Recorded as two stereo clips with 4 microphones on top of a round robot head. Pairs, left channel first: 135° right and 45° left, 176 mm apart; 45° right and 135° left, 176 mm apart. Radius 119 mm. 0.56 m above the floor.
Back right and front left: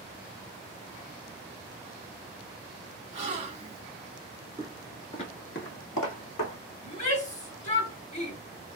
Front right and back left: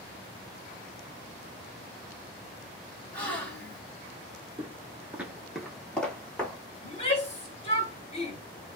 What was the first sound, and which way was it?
A gasp, 30° left.